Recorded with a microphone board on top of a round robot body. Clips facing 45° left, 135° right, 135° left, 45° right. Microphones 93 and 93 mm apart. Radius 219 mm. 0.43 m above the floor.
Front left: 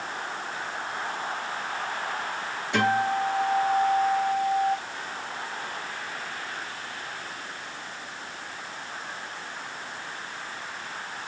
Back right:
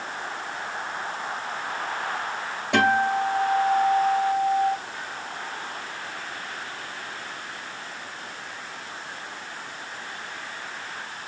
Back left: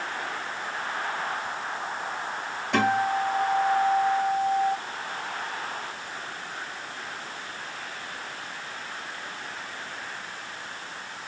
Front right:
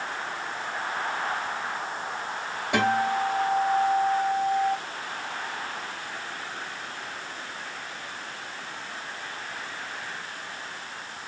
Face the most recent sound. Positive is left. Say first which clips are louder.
# back right 3 dB, even
turn(degrees=-125)